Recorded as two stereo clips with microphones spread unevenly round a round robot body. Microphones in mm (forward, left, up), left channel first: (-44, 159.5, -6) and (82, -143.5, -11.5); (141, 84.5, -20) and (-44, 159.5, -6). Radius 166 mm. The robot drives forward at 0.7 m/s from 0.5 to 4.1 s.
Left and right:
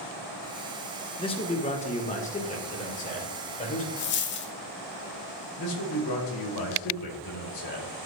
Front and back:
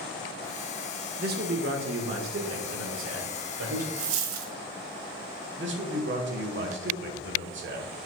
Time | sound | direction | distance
1.2 | a man speaking | straight behind | 1.0 m
4.0 | a dropped coin | 170° left | 0.9 m
5.6 | a man speaking | 135° left | 1.9 m